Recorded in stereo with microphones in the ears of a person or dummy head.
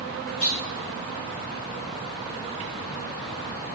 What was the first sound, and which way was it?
A clunk, 85° left.